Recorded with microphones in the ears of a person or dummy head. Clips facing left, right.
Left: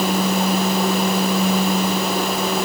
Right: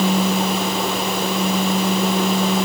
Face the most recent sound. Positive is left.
No sound to turn to.